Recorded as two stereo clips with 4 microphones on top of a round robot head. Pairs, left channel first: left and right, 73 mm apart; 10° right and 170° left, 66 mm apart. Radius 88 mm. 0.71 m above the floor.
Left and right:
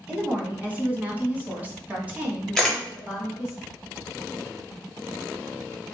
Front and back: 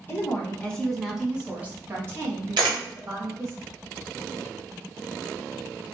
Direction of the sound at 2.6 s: 175° left.